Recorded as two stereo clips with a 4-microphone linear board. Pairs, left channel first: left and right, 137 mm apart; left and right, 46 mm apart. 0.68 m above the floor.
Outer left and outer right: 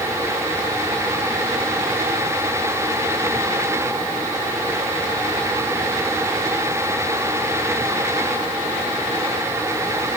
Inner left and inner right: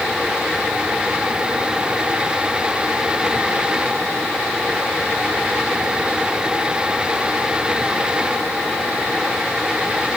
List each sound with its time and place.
Only background noise.